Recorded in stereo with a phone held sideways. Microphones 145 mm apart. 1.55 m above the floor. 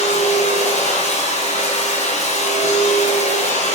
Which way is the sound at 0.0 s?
50° left (ahead or behind).